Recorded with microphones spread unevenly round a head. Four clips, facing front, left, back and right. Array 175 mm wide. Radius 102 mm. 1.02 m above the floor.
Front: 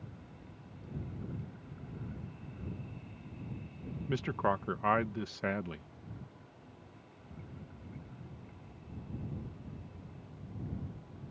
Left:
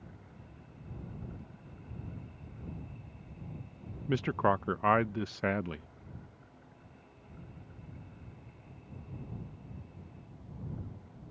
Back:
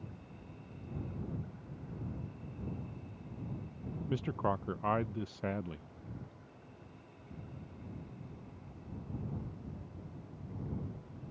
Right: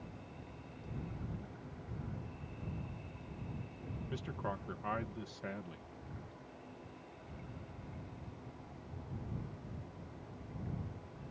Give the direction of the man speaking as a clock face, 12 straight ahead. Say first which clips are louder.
Left 14 dB, front 2 dB; 10 o'clock.